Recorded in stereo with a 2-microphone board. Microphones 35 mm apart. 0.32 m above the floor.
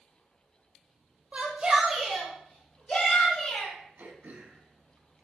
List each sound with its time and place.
1.3 s a shout: 35° right (ahead or behind), 1.2 m; by 3.7 s 45° left (ahead or behind), 2.0 m
4.0 s throat clearing: 55° right (ahead or behind), 0.8 m